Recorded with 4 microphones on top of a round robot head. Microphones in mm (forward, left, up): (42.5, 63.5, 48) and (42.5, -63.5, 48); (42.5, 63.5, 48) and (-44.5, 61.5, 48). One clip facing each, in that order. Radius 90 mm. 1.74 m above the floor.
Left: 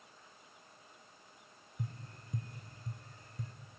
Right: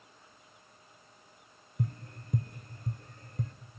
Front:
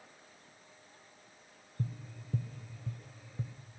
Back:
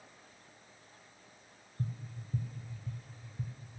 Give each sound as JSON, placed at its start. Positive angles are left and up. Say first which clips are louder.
{"t": 1.8, "sound": "tapping", "louder": "right 8 dB, even", "azimuth_deg": -45, "distance_m": 1.1}